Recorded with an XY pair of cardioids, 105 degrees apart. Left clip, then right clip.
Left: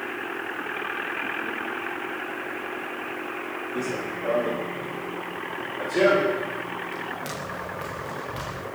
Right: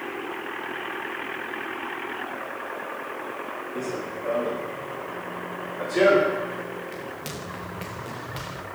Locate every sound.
3.8 s running footsteps: 20° left, 6.5 m; by 8.6 s 30° right, 10.5 m